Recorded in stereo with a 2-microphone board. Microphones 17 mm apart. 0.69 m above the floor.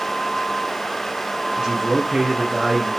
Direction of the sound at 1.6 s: 30° right (ahead or behind).